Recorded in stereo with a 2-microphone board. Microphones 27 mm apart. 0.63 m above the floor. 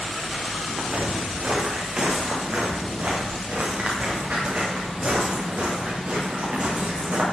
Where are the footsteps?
65° right (ahead or behind), 4 m; by 7.2 s 75° right (ahead or behind), 8.5 m.